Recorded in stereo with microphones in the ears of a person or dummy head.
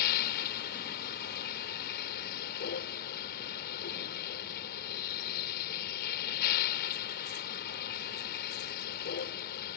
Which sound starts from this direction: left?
A vehicle, at 0.0 s.